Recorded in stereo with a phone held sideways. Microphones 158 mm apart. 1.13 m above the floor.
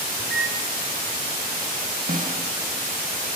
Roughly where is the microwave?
Right.